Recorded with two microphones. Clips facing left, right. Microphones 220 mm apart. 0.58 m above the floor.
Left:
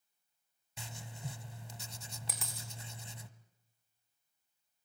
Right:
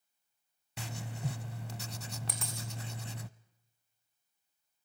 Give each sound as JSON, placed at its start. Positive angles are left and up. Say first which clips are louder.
{"t": 0.8, "sound": "writing", "louder": "right 7 dB", "side_deg": -65, "distance_m": 0.8}
{"t": 2.3, "sound": "a dropped coin", "louder": "right 5 dB", "side_deg": 0, "distance_m": 3.5}